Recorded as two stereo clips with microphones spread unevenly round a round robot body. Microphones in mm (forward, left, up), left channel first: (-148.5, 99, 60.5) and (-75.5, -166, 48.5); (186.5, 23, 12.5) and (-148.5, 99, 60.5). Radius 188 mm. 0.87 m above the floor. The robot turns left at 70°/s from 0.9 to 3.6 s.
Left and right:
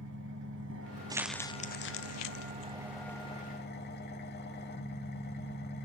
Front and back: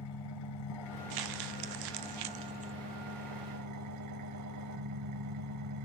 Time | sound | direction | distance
0.0 | an engine running | 20° right | 1.0 m
1.1 | crumpling | 150° right | 0.6 m